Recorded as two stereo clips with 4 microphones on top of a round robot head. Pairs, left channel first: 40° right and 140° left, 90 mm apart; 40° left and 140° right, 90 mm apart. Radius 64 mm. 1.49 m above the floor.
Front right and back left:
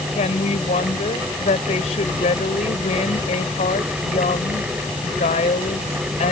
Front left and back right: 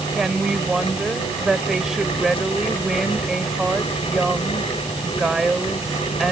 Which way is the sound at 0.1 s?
55° right.